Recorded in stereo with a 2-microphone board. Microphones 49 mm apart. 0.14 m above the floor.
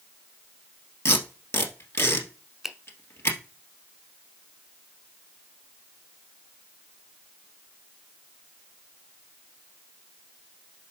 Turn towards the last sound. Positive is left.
turn(degrees=-5)  # may be behind; listen again after turning